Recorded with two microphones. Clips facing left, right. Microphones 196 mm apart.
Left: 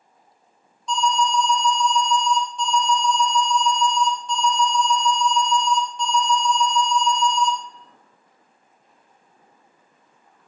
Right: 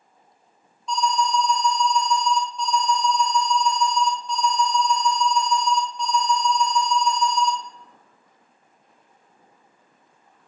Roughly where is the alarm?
Centre.